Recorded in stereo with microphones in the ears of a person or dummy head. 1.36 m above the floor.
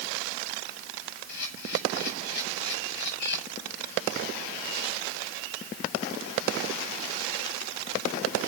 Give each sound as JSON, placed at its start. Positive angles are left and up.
{"t": 1.3, "sound": "a camera shutter", "side_deg": 60, "distance_m": 7.5}